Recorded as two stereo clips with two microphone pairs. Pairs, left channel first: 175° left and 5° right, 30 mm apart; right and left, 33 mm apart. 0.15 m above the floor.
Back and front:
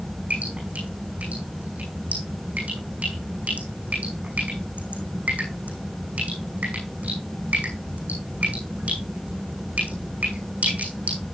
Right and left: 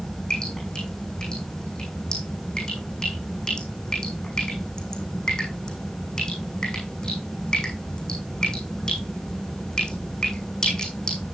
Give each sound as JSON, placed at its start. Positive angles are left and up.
{"t": 0.3, "sound": "dripping", "azimuth_deg": -25, "distance_m": 6.0}